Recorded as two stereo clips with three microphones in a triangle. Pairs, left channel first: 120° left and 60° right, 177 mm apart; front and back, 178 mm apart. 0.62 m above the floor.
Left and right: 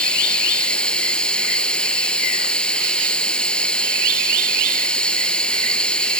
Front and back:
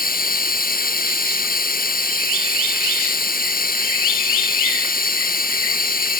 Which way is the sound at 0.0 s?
35° left.